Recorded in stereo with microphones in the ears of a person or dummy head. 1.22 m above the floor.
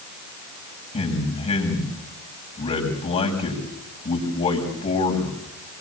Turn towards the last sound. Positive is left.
turn(degrees=35)  # may be behind; listen again after turning